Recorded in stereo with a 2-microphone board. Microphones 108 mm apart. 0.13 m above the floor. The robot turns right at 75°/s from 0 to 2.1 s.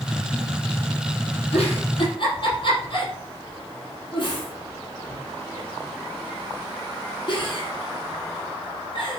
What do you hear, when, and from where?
1.5 s a giggle: 65° left (ahead or behind), 4.5 m; by 9.2 s 50° left (ahead or behind), 4.5 m